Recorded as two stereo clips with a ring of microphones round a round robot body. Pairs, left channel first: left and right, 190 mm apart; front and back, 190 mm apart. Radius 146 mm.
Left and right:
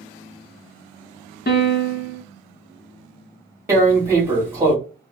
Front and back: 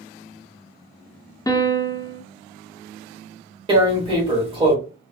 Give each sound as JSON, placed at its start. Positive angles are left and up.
{"t": 1.5, "sound": "a piano", "azimuth_deg": 70, "distance_m": 0.7}
{"t": 3.7, "sound": "tearing paper", "azimuth_deg": -155, "distance_m": 1.4}